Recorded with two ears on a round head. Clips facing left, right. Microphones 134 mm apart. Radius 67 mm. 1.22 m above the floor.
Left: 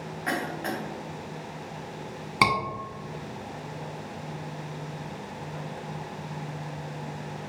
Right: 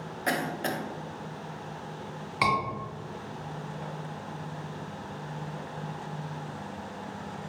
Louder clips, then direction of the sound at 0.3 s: Right 1 dB; 35° right (ahead or behind).